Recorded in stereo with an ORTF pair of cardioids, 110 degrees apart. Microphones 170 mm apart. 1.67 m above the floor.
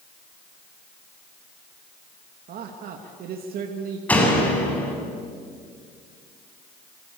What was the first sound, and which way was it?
A man speaking, 65° right.